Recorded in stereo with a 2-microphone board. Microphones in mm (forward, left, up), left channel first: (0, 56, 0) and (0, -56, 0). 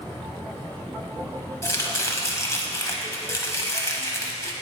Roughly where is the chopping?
Left.